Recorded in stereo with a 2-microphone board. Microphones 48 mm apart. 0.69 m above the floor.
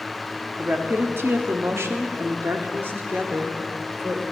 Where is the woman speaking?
45° right (ahead or behind), 1.0 m; by 4.2 s 35° right (ahead or behind), 1.9 m.